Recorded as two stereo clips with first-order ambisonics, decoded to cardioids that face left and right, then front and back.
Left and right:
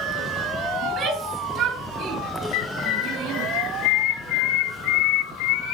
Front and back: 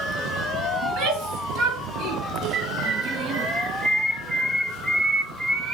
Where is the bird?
110° left, 2.5 m.